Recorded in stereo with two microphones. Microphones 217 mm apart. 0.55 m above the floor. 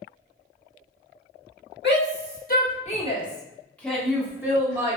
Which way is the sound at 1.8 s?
50° left (ahead or behind).